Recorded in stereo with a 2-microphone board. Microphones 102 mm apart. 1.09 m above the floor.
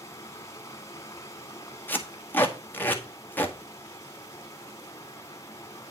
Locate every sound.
0.0 s running water: 30° left (ahead or behind), 1.8 m
1.9 s tape being pulled: 20° left (ahead or behind), 1.8 m